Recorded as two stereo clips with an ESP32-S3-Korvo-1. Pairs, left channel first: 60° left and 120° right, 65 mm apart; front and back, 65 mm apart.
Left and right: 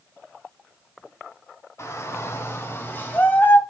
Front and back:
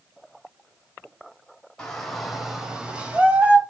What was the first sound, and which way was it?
A shout, 75° left.